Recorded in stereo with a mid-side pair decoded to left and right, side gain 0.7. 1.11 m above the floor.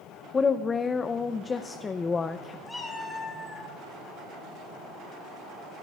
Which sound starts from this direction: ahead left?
A woman speaking, at 0.3 s.